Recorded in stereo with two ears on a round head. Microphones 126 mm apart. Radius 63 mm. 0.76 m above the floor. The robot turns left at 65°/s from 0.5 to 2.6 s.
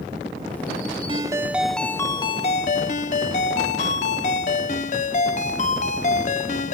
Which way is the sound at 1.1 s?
140° right.